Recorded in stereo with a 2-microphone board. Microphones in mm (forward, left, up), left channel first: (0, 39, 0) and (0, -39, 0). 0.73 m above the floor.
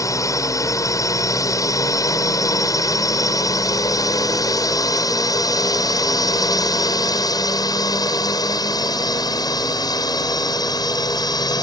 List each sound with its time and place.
0.0 s a drone: 45° left (ahead or behind); by 11.6 s 60° left (ahead or behind)